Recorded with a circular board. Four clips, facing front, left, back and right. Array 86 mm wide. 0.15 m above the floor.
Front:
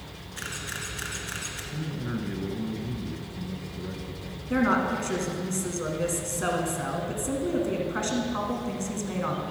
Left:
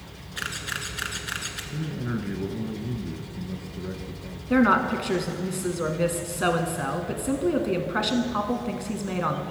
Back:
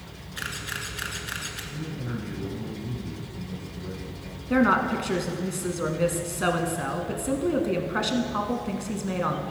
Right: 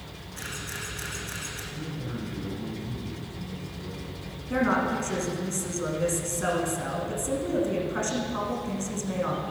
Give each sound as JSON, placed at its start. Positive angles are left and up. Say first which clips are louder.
{"t": 0.4, "sound": "a camera shutter", "louder": "left 5 dB, back 2 dB", "azimuth_deg": 110, "distance_m": 1.6}
{"t": 1.7, "sound": "a man speaking", "louder": "left 6 dB, front 2 dB", "azimuth_deg": 75, "distance_m": 1.5}
{"t": 4.5, "sound": "a woman speaking", "louder": "left 5 dB, back 3 dB", "azimuth_deg": 120, "distance_m": 1.2}